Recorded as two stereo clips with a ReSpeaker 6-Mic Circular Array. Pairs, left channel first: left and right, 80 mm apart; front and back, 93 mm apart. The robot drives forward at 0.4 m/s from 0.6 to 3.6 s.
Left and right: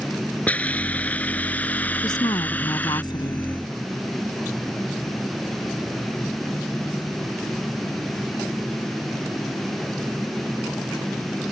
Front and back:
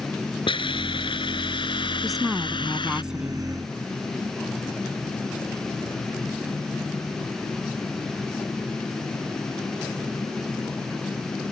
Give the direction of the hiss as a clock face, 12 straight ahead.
11 o'clock.